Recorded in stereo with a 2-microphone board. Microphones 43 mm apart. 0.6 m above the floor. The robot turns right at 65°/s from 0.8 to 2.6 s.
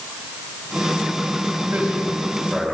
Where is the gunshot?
No gunshot in this recording.